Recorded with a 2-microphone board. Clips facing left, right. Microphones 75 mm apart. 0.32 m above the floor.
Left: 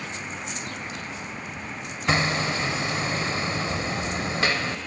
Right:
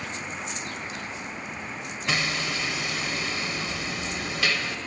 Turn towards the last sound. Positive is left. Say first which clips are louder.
# left 5 dB
turn(degrees=35)  # may be behind; listen again after turning